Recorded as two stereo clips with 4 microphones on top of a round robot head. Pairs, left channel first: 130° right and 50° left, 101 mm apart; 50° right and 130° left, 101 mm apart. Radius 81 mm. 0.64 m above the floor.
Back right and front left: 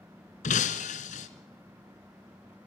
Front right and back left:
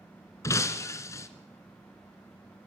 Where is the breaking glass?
115° right, 1.2 m.